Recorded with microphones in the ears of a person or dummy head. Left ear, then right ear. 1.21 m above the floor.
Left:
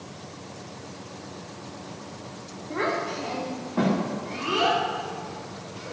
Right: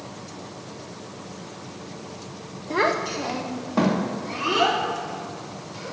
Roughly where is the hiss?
I don't hear a hiss.